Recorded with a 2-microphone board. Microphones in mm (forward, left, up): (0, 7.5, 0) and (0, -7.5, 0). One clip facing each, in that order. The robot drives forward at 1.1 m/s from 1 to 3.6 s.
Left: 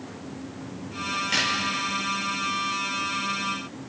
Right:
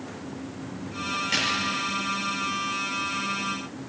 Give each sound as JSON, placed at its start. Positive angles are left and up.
{"t": 1.1, "sound": "a crack", "side_deg": -5, "distance_m": 6.0}